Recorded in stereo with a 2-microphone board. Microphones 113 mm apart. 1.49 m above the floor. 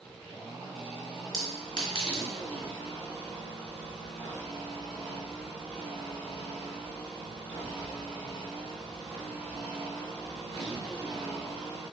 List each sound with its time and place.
1.3 s a clink: 45° left (ahead or behind), 1.5 m